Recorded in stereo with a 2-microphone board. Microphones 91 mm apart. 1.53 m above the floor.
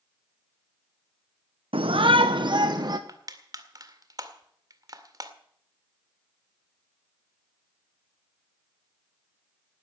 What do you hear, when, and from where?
1.7 s a shout: 80° right, 0.8 m; by 3.0 s 45° right (ahead or behind), 1.2 m
3.1 s crushing: 45° right (ahead or behind), 2.0 m